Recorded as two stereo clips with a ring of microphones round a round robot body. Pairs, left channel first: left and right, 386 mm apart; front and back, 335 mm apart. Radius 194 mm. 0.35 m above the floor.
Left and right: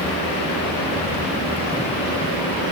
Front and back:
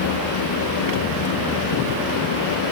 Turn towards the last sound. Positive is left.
No sound to turn to.